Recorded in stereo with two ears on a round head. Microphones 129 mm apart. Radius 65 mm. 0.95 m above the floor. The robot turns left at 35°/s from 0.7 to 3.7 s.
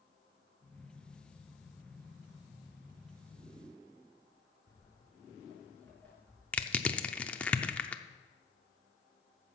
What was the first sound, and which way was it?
Footsteps, 20° left (ahead or behind).